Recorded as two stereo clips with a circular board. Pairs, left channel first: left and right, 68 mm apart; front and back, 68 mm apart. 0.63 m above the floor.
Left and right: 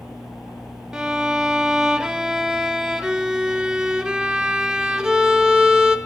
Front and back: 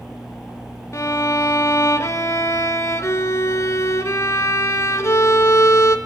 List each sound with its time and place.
0.9 s a violin: 10° right, 0.8 m